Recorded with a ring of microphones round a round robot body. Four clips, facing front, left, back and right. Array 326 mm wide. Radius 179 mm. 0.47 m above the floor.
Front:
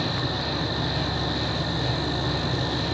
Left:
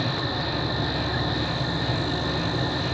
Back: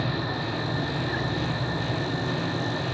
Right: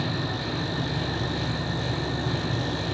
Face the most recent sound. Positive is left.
turn(degrees=30)